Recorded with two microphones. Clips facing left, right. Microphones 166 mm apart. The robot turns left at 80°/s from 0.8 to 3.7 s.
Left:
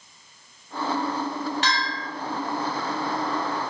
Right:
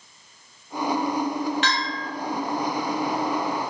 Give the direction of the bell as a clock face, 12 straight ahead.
10 o'clock.